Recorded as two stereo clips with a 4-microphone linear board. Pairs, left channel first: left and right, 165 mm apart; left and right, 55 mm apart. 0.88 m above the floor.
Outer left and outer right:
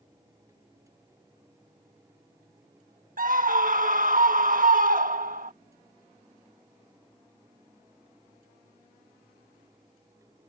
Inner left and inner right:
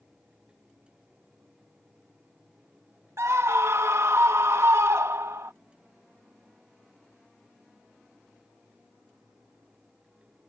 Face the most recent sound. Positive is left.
turn(degrees=-55)  # may be behind; listen again after turning